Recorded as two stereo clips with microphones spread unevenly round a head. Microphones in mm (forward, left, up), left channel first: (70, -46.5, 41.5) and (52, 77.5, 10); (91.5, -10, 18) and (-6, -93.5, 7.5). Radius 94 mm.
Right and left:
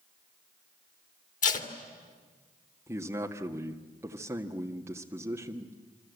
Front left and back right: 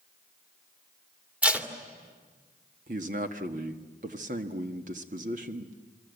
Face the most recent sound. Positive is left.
turn(degrees=175)